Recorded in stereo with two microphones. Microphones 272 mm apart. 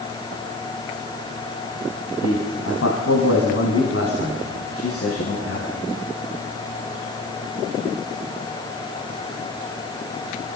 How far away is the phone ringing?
I don't hear a phone ringing.